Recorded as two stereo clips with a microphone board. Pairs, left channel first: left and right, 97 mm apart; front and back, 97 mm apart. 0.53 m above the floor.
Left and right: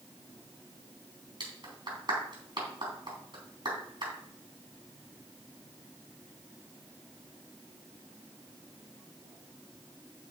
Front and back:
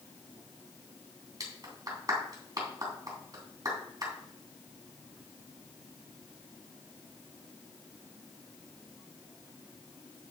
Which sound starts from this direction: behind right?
A clap, at 1.4 s.